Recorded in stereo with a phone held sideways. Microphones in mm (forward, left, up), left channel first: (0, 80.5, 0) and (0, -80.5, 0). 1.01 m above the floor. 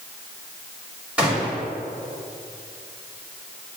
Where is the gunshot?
10° right (ahead or behind), 1.8 m.